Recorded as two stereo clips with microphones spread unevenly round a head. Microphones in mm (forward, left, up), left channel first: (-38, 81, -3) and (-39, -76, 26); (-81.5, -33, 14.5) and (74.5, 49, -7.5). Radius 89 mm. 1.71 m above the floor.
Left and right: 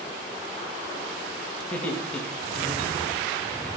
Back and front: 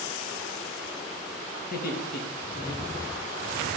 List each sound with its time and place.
1.6 s laughter: 170° left, 2 m; by 3.5 s 175° left, 3.5 m